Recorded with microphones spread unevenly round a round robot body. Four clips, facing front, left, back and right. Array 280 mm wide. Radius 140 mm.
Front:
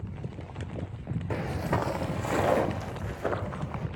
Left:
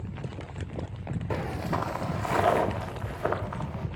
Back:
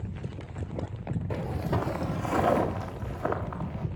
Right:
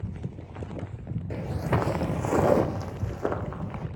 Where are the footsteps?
35° left, 0.6 m; by 3.9 s 95° right, 2.5 m.